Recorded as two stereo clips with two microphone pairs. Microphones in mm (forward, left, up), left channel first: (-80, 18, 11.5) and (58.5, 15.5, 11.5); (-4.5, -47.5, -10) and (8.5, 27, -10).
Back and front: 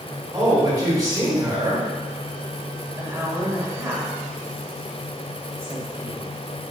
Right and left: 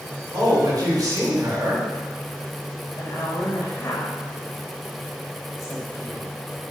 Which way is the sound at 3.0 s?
70° right.